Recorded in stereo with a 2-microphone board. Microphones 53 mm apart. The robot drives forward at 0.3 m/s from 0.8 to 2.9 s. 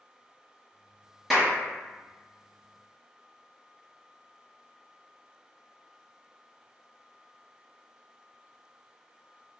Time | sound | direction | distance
1.3 | a clap | 5° left (ahead or behind) | 0.9 m